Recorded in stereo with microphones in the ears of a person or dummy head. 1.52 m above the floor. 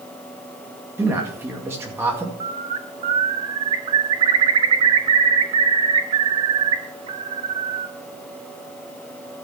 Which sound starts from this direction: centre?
A man speaking, at 1.0 s.